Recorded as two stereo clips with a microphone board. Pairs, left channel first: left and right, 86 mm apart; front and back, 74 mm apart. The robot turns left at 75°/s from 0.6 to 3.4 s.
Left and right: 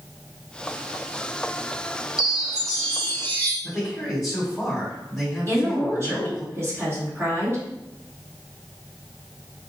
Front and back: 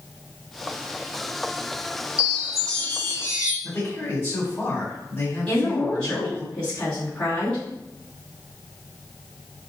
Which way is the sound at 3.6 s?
5° left.